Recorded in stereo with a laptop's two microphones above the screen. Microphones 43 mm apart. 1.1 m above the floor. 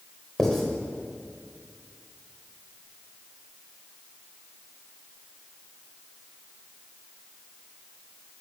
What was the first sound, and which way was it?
Writing, 10° left (ahead or behind).